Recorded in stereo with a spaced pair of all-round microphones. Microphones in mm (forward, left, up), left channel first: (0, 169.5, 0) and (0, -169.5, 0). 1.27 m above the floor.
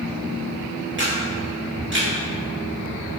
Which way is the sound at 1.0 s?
35° right (ahead or behind).